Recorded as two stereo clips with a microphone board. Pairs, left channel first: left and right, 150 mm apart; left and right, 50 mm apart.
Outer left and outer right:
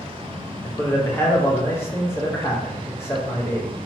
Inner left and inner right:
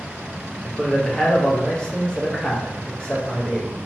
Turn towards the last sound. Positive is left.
turn(degrees=15)  # may be behind; listen again after turning